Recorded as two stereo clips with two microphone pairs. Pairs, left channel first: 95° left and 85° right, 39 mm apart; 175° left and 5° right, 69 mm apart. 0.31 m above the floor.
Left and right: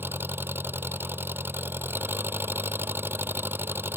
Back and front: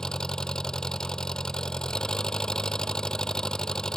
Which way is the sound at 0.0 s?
110° right.